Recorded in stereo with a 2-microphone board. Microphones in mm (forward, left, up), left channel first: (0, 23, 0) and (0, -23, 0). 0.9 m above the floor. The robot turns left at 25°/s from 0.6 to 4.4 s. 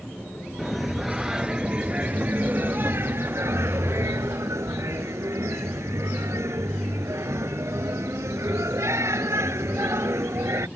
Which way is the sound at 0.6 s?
5° left.